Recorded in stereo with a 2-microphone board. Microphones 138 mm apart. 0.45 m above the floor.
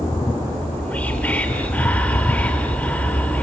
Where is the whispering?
10° left (ahead or behind), 1.1 m.